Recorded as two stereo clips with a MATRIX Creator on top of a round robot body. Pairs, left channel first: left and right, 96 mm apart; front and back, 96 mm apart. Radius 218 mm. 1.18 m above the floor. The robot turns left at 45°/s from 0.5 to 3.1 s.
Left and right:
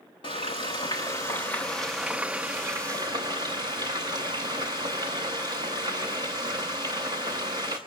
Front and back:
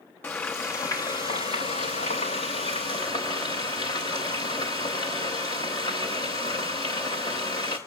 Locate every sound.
0.2 s frying: 65° left, 0.6 m; by 7.8 s 50° right, 0.6 m